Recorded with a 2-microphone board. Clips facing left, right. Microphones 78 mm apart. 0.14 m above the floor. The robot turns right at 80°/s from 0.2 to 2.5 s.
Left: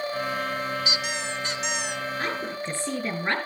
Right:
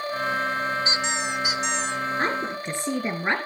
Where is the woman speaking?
35° right (ahead or behind), 2 m; by 3.4 s 15° right (ahead or behind), 2 m.